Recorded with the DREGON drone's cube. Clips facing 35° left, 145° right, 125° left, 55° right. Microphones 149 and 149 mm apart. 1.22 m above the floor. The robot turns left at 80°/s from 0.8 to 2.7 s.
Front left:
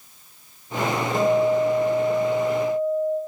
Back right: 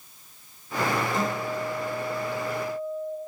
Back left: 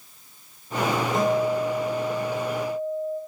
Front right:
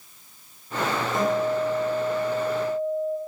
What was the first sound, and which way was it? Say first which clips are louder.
A guitar: front left 10 dB, even; 70° left.